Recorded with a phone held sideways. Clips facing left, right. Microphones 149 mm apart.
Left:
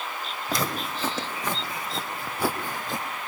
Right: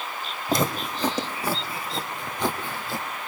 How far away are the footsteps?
About 3 m.